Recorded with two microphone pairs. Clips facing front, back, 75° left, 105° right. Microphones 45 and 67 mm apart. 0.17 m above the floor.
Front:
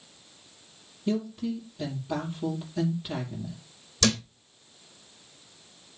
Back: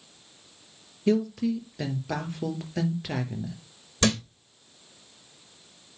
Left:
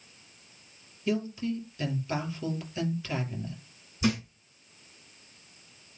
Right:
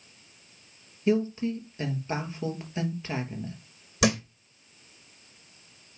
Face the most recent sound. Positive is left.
turn(degrees=-120)